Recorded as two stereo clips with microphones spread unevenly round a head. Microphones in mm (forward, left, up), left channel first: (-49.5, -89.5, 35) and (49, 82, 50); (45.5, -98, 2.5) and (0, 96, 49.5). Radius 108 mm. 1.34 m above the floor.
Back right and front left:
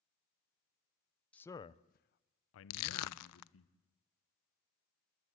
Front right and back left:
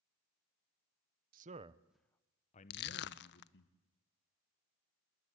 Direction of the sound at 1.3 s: 155° left.